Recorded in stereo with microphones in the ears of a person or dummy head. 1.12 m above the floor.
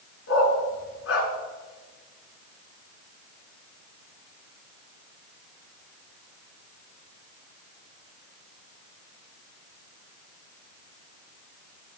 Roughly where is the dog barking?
Left.